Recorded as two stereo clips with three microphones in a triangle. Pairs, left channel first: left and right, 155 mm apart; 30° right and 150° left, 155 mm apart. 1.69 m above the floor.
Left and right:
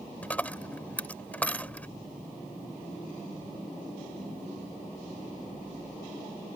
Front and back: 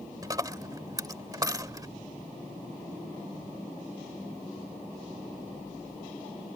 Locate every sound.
0.2 s a dropped coin: 155° left